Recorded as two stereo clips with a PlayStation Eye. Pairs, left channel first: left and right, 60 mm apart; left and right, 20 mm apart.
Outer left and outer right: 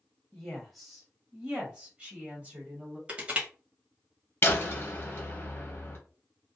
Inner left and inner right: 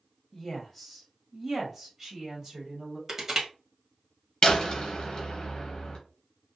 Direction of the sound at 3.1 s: 20° right (ahead or behind).